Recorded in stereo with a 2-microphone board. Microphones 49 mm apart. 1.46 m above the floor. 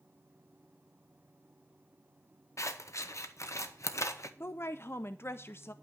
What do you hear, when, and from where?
2.6 s scissors: 85° left, 1.0 m
4.4 s a woman speaking: 60° left (ahead or behind), 0.5 m